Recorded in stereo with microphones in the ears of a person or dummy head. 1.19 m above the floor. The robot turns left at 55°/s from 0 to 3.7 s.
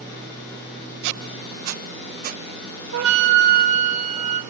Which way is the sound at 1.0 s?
70° right (ahead or behind).